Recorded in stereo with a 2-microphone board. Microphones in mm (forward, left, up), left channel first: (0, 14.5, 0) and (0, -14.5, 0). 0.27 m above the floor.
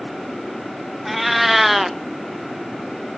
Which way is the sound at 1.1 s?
5° right (ahead or behind).